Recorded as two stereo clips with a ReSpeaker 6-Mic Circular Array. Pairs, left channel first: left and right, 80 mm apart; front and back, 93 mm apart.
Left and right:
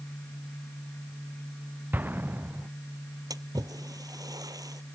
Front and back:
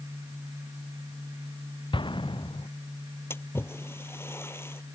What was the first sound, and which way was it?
An explosion, 25° right.